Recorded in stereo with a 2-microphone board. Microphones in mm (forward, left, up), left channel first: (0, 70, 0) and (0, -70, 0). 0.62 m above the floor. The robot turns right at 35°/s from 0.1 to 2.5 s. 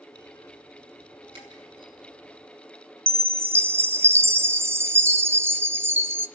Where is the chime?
15° right (ahead or behind), 0.6 m.